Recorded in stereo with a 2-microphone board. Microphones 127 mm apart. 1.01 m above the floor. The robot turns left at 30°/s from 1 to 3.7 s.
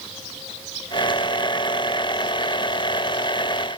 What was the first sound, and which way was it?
Only background noise.